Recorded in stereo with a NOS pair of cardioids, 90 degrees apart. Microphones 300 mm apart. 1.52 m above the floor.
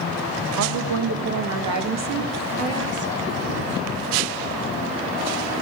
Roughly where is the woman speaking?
Right.